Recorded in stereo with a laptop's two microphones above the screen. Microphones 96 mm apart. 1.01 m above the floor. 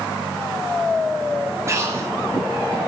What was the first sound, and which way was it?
Breathing, 30° right (ahead or behind).